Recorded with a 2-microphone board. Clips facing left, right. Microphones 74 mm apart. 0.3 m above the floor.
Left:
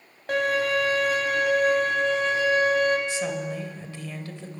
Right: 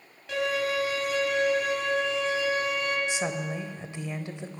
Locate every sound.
0.3 s a violin: 50° left (ahead or behind), 2.5 m
3.1 s a woman speaking: 20° right (ahead or behind), 0.9 m